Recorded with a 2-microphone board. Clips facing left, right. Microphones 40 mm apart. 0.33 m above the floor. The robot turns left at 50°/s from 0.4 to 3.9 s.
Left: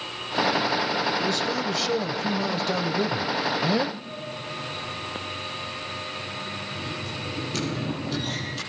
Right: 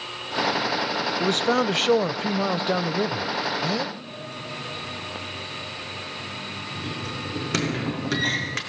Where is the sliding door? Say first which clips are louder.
Left 1 dB; 65° right (ahead or behind), 4.5 m.